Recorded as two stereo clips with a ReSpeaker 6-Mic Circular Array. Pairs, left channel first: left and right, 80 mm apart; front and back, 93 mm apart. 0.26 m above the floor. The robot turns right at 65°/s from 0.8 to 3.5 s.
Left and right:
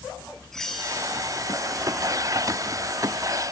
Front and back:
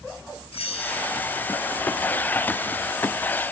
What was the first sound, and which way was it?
A bell, 5° left.